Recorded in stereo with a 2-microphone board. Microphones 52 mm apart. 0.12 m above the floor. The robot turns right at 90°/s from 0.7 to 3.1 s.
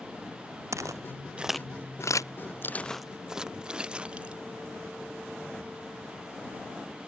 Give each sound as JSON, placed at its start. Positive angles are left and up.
{"t": 0.7, "sound": "footsteps", "side_deg": -70}